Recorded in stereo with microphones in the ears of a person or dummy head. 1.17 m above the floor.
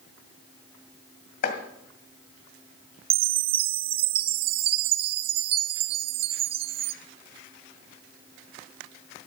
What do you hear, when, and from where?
1.4 s chopping: 50° left (ahead or behind), 2 m
3.1 s a chime: 30° right (ahead or behind), 0.6 m